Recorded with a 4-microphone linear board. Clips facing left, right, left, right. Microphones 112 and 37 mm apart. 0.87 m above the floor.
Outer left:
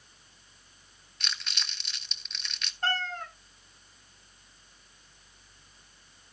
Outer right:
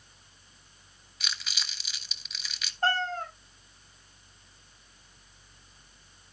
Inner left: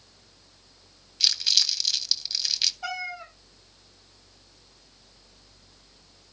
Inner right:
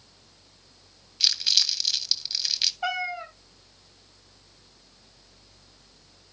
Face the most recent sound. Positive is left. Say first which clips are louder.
# outer right 4 dB, inner right 4 dB
turn(degrees=-40)  # may be behind; listen again after turning